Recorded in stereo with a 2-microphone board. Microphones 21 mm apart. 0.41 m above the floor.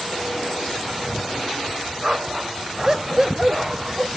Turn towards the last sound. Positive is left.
turn(degrees=-20)  # may be behind; listen again after turning